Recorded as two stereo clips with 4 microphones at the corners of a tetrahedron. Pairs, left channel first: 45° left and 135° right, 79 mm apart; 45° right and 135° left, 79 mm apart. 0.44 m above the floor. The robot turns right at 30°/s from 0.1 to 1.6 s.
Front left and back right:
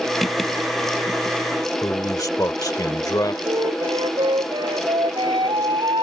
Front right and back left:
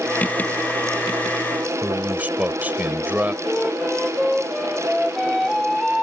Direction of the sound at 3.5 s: 135° right.